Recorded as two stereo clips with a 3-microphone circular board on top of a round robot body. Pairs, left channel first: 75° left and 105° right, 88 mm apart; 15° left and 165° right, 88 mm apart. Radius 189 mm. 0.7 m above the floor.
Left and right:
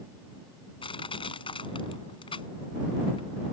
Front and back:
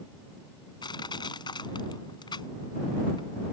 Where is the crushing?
50° left.